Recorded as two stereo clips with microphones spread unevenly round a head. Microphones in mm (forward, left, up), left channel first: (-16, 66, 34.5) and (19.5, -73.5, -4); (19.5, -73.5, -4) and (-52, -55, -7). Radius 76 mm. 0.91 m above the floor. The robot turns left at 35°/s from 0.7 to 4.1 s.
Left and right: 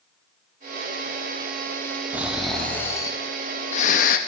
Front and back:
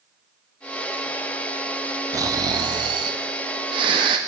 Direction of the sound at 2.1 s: 155° right.